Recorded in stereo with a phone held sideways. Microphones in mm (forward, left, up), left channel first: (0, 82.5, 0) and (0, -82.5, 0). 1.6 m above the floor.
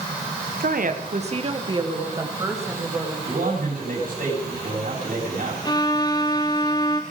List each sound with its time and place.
0.6 s a woman speaking: 75° right (ahead or behind), 1.2 m; by 3.2 s 15° right (ahead or behind), 3 m
3.3 s a man speaking: 65° right (ahead or behind), 4.5 m
5.7 s a violin: 25° left (ahead or behind), 0.7 m